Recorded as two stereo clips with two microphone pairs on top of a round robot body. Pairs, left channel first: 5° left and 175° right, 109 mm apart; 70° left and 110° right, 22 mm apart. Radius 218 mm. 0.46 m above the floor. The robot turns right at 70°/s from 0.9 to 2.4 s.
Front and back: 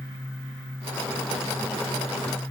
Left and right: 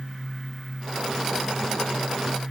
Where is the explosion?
I don't hear an explosion.